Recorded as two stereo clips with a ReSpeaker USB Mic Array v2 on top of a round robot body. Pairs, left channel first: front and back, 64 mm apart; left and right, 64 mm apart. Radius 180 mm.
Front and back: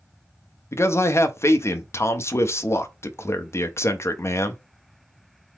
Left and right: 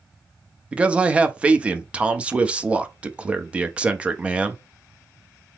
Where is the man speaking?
25° right, 1.0 m.